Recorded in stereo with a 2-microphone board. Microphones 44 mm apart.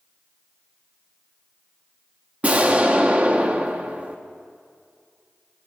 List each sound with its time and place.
2.4 s an explosion: 30° right (ahead or behind), 0.9 m